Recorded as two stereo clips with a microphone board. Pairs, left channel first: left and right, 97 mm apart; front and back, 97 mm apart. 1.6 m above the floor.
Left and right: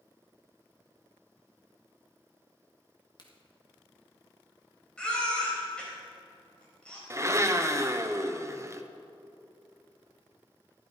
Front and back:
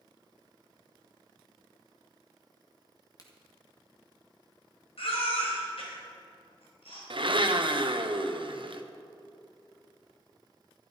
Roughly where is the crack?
Ahead left.